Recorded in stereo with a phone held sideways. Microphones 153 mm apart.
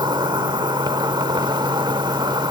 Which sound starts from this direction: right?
An insect, at 0.0 s.